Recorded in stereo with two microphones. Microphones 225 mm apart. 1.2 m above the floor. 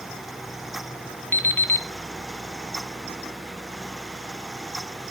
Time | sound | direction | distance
1.3 | an alarm clock | 10° left (ahead or behind) | 1.1 m